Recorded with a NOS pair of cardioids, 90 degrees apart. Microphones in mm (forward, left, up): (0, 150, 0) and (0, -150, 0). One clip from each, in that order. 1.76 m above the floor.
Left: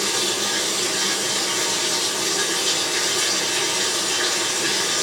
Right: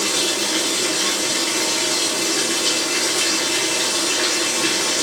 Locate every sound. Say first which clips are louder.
0.0 s running water: right 2 dB; 60° right, 1.4 m